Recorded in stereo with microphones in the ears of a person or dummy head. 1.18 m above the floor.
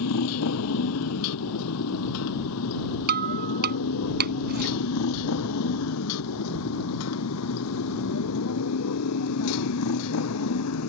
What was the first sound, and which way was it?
A motorcycle, 75° left (ahead or behind).